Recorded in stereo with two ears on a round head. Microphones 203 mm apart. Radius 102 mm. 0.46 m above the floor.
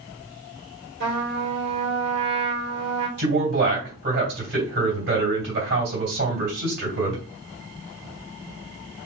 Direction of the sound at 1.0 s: 50° right (ahead or behind).